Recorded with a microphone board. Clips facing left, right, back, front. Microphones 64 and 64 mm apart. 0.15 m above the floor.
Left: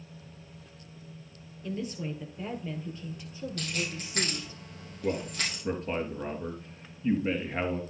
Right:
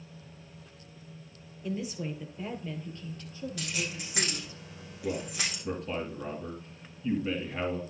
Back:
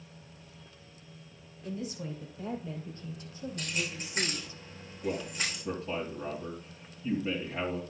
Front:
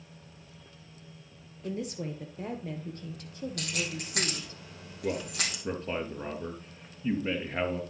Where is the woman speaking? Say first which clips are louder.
Even, front 3 dB; 10° right, 2.5 m; by 4.6 s 35° left, 3 m.